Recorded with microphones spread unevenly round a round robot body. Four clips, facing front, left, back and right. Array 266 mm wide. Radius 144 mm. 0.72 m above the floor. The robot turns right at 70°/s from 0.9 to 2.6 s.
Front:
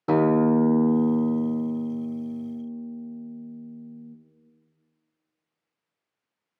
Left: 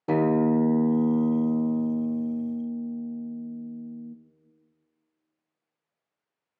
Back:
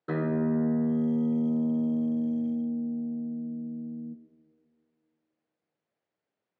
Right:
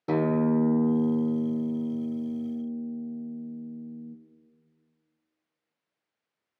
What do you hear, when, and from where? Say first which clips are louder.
0.1 s a guitar: left 2 dB, front 8 dB; 25° left, 0.5 m; by 4.2 s 140° left, 0.5 m